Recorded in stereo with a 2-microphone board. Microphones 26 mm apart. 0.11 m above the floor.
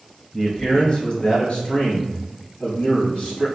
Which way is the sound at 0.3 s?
30° left (ahead or behind).